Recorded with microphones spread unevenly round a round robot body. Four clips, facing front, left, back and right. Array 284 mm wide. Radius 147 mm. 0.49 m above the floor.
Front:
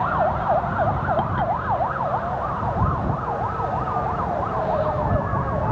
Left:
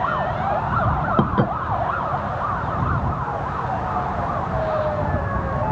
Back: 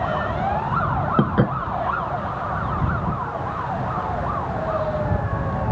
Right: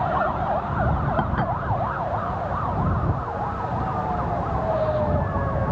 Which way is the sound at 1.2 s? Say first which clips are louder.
Left 6 dB, back 2 dB; 155° left.